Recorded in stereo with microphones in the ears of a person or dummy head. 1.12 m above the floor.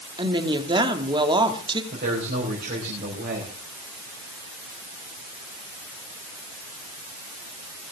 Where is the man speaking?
40° right (ahead or behind), 5 m.